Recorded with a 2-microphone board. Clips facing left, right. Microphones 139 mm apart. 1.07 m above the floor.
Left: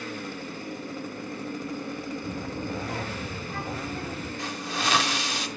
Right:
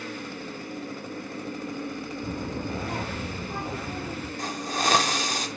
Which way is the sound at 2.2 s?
45° right (ahead or behind).